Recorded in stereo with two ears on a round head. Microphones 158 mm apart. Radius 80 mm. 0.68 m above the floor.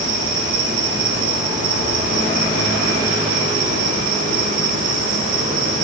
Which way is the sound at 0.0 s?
45° right (ahead or behind).